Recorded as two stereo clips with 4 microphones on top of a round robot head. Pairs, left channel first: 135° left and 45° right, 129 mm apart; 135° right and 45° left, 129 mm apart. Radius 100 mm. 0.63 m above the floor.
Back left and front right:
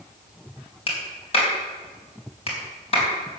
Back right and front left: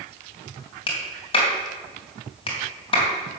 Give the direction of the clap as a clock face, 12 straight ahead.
6 o'clock.